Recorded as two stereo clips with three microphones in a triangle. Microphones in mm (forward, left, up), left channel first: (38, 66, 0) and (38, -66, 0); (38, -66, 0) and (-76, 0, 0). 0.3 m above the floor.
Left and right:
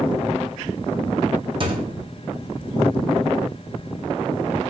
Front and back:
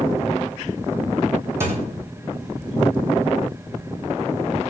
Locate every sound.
1.6 s a thud: 140° right, 1.2 m